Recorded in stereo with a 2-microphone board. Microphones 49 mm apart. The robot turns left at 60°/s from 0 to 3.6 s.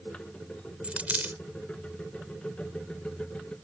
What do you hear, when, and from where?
0.8 s a dropped coin: 25° right (ahead or behind); by 1.4 s 40° right (ahead or behind)